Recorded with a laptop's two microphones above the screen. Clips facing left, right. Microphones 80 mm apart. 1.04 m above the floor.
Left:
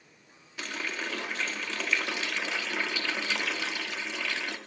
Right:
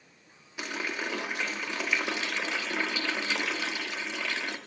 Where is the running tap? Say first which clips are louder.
Right 2 dB; 15° right (ahead or behind), 1.3 m.